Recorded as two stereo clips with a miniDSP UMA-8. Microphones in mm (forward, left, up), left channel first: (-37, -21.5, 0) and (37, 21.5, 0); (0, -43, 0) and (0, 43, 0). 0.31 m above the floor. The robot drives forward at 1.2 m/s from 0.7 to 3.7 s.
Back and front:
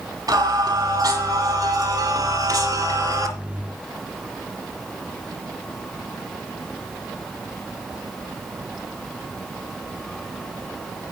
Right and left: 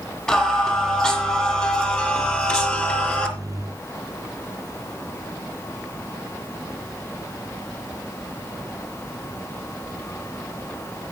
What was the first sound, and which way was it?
Singing, 15° right.